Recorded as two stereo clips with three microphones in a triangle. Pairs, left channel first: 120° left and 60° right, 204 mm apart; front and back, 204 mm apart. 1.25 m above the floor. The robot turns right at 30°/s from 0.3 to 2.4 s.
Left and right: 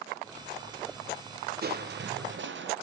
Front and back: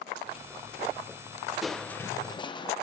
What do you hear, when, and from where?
1.6 s crushing: 90° right, 0.7 m; by 2.7 s 65° right, 0.7 m